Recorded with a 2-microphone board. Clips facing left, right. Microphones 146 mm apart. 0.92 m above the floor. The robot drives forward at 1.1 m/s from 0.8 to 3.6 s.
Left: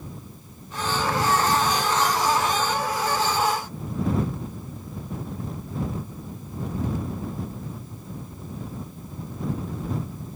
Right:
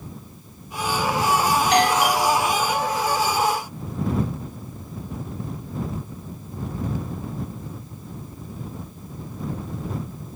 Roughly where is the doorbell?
Right.